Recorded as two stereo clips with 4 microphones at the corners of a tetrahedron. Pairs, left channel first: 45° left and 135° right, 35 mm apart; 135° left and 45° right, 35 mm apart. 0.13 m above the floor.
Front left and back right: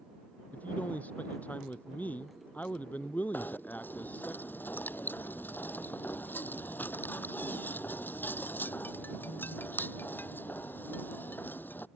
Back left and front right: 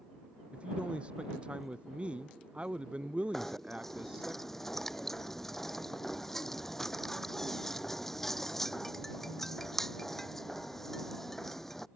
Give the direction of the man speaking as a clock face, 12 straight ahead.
12 o'clock.